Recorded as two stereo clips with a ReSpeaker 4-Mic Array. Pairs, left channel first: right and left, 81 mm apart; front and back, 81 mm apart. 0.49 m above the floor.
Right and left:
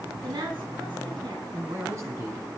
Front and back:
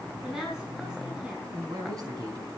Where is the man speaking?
140° left, 4 m.